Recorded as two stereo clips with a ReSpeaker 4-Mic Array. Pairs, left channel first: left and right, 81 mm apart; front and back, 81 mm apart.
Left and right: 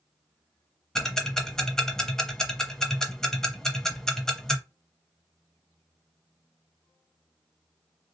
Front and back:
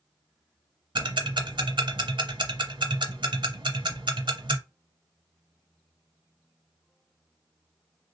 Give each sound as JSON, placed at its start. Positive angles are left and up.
{"t": 0.9, "sound": "ticking", "azimuth_deg": 175, "distance_m": 0.6}